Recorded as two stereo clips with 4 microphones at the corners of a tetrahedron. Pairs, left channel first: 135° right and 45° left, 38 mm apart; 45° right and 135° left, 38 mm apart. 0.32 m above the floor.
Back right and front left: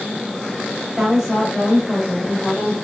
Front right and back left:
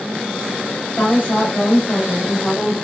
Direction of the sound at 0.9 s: 50° right.